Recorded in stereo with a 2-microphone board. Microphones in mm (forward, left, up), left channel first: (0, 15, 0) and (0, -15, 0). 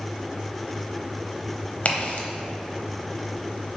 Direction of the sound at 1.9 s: 45° left (ahead or behind).